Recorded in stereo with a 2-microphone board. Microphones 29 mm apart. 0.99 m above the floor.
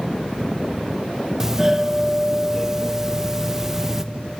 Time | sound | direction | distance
1.4 | a doorbell | 15° right (ahead or behind) | 0.8 m